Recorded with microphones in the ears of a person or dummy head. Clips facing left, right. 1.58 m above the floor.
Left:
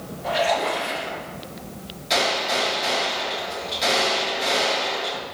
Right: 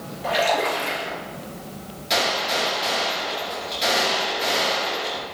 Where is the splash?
60° right (ahead or behind), 2 m.